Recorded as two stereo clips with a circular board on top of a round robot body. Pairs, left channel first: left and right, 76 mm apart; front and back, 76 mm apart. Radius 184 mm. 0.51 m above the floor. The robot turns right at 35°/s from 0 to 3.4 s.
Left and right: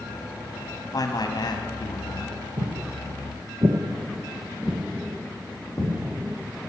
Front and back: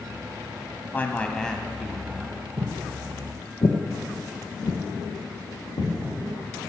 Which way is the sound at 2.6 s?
130° right.